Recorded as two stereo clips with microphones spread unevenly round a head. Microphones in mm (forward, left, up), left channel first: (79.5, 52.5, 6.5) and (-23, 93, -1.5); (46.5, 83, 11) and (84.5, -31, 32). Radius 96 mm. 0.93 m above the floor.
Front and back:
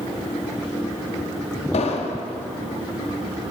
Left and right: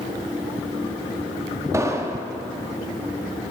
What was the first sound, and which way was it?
An explosion, 10° right.